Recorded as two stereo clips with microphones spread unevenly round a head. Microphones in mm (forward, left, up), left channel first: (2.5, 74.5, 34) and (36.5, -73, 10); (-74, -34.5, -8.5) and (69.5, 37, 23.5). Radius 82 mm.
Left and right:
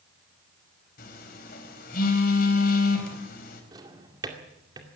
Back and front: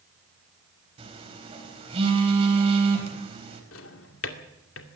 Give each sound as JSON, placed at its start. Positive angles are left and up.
{"t": 1.0, "sound": "a phone buzzing", "azimuth_deg": 80, "distance_m": 4.5}
{"t": 3.7, "sound": "a drawer", "azimuth_deg": -150, "distance_m": 2.0}